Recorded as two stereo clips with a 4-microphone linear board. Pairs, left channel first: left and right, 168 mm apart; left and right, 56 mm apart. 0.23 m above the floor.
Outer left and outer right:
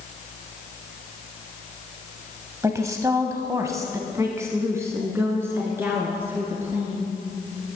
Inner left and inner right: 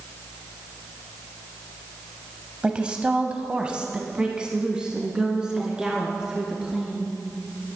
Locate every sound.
2.6 s a woman speaking: 20° right (ahead or behind), 0.9 m; by 7.1 s 15° right (ahead or behind), 3.5 m